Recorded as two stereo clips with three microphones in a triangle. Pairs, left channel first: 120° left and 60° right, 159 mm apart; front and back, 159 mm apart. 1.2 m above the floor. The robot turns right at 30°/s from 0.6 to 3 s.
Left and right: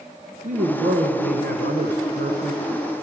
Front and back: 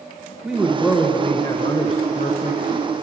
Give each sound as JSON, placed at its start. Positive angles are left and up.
{"t": 0.4, "sound": "a man speaking", "azimuth_deg": -95, "distance_m": 0.7}